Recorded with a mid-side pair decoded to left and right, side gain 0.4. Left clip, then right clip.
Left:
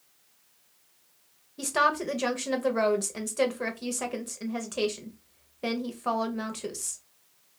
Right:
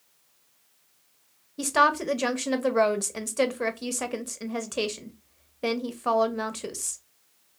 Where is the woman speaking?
30° right, 0.8 m.